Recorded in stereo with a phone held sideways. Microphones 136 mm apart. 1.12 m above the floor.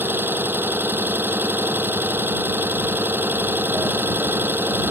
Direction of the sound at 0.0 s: 15° right (ahead or behind).